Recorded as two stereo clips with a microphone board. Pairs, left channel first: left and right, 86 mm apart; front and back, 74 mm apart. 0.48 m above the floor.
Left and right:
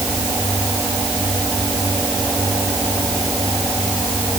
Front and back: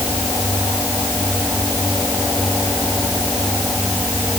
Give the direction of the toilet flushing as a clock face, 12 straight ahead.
No toilet flushing in this recording.